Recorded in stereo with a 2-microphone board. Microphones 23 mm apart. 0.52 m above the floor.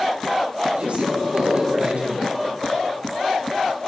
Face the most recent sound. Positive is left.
turn(degrees=-70)  # may be behind; listen again after turning